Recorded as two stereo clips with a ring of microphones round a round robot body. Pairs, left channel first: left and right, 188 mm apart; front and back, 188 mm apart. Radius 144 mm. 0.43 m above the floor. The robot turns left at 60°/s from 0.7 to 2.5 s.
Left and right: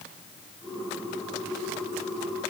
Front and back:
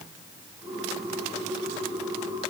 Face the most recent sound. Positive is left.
No sound to turn to.